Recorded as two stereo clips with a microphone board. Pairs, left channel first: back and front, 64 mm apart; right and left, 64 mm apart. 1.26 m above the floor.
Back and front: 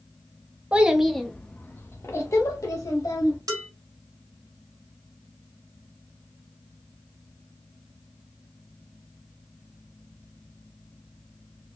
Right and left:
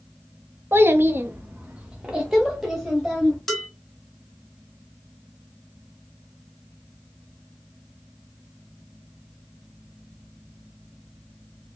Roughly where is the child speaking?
Ahead left.